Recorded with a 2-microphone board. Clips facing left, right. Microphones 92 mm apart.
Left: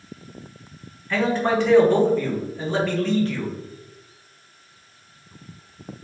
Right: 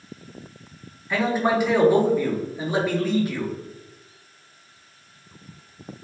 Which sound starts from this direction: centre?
A man speaking, at 1.1 s.